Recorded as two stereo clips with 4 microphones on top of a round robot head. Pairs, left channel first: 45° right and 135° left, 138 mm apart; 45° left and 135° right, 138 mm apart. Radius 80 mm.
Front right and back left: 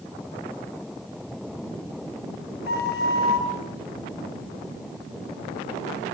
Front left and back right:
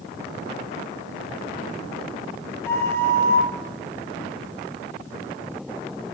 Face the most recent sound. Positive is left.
turn(degrees=-30)